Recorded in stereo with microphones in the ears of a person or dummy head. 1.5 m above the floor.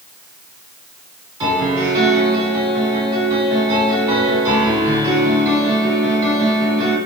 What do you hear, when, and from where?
1.4 s a piano: 20° right (ahead or behind), 1.7 m